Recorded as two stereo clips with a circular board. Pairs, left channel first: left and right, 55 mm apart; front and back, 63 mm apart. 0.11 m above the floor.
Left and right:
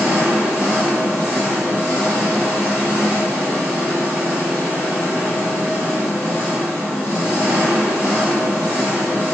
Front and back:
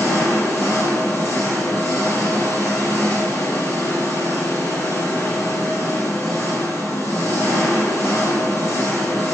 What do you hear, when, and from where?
0.0 s an engine running: 30° right, 2.5 m